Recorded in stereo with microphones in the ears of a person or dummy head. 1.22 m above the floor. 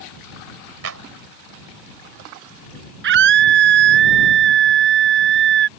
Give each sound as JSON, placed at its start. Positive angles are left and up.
{"t": 0.8, "sound": "a clap", "side_deg": -80}
{"t": 3.0, "sound": "a scream", "side_deg": -65}